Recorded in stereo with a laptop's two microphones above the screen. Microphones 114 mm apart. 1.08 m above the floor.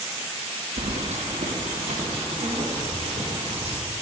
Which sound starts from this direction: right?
Keys jangling, at 0.8 s.